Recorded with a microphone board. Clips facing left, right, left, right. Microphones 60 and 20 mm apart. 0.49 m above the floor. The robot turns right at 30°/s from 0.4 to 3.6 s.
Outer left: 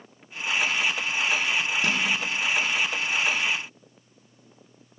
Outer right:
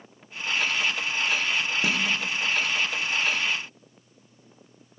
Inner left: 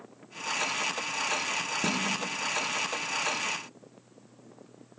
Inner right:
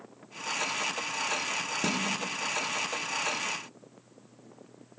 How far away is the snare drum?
About 0.8 m.